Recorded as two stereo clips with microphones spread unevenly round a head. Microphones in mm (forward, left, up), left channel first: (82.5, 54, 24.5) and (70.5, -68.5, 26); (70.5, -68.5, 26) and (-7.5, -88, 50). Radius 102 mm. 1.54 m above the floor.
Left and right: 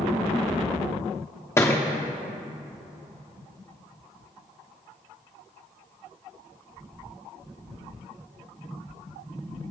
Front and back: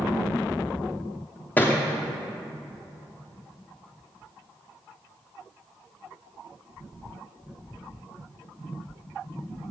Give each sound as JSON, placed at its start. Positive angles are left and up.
{"t": 1.6, "sound": "a thud", "azimuth_deg": 105, "distance_m": 1.1}